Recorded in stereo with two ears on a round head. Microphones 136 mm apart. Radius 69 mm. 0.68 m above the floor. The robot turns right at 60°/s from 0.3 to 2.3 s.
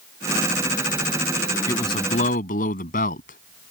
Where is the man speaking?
20° left; by 3.7 s 55° left.